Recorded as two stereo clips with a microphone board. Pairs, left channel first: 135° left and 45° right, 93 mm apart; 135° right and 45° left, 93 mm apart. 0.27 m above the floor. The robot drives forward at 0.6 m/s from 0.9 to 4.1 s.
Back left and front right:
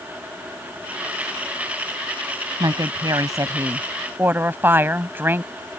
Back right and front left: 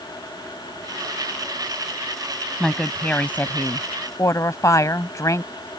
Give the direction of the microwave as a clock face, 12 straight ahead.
No microwave in this recording.